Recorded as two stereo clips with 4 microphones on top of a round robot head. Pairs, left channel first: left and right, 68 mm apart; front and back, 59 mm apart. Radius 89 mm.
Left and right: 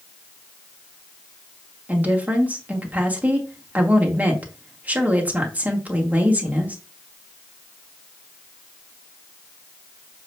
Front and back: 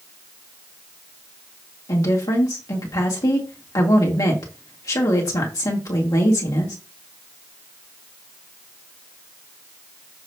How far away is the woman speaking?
About 2.5 m.